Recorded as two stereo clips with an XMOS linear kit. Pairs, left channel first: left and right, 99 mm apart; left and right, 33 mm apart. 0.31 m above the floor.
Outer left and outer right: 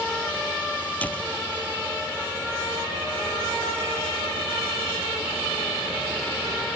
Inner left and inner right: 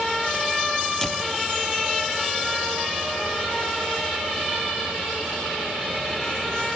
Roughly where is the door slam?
Centre.